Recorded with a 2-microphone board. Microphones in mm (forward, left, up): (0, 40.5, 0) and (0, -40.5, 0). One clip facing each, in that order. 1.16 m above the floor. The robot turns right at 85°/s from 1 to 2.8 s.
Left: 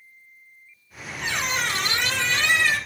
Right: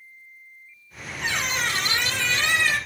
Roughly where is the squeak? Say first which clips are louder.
Even; ahead.